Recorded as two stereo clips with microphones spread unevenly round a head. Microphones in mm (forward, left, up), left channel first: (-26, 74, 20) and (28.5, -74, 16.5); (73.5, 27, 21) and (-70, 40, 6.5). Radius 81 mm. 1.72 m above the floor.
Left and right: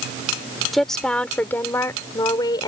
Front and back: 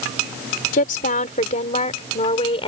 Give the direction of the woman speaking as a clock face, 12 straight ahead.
11 o'clock.